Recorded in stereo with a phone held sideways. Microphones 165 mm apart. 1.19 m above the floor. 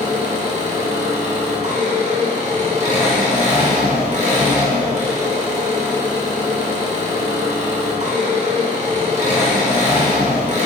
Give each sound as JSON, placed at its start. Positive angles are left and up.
{"t": 0.0, "sound": "an engine running", "side_deg": -45, "distance_m": 0.7}